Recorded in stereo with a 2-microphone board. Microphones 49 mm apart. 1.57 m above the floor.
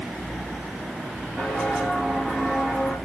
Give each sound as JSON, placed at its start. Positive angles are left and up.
{"t": 1.4, "sound": "footsteps", "side_deg": 10, "distance_m": 8.0}